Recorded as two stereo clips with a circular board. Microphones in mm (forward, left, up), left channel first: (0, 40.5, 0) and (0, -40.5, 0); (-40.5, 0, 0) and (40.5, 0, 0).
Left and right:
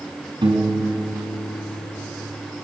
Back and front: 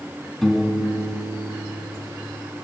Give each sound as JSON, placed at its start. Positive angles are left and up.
{"t": 0.4, "sound": "a piano", "azimuth_deg": -90, "distance_m": 4.5}